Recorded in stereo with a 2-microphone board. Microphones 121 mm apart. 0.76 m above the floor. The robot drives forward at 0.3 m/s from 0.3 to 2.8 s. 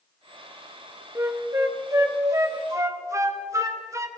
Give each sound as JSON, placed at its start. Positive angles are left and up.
{"t": 1.1, "sound": "a flute", "side_deg": -25, "distance_m": 1.0}